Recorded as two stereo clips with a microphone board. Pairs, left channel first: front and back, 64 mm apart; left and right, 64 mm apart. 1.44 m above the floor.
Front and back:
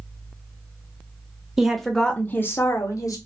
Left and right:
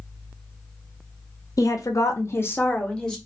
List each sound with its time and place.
1.6 s a woman speaking: 100° left, 0.6 m; by 3.2 s 10° left, 0.7 m